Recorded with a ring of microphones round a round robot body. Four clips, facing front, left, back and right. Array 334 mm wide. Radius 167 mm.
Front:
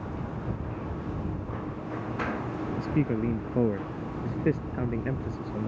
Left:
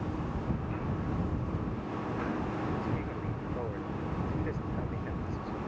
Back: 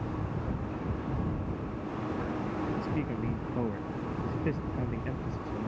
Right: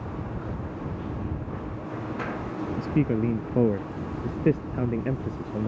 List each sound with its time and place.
2.8 s a man speaking: 65° right; by 5.7 s 75° right